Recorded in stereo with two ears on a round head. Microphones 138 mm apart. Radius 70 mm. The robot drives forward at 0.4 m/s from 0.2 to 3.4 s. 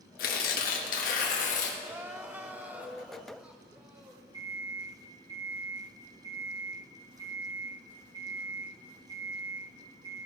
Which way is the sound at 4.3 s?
25° right (ahead or behind).